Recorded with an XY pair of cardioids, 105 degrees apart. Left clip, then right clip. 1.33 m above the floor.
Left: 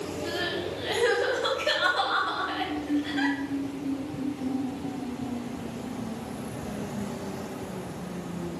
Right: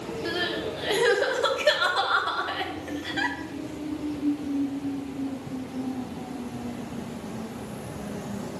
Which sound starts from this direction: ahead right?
Crying, at 0.2 s.